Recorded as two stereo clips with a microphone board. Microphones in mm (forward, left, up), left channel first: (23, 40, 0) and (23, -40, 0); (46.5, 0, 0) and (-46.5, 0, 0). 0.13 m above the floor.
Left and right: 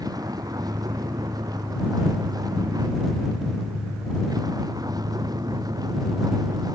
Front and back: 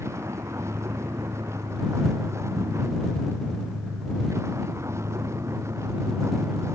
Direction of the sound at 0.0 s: 120° right.